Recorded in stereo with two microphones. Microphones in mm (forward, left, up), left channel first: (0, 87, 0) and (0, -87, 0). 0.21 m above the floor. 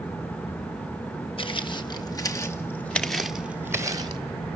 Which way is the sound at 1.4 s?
30° left (ahead or behind).